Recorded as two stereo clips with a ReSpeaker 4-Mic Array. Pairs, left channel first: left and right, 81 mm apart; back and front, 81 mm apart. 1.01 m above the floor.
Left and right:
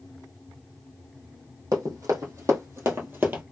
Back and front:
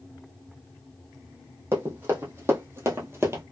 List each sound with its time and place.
1.7 s running footsteps: 50° right, 2 m; by 3.4 s 35° right, 1.3 m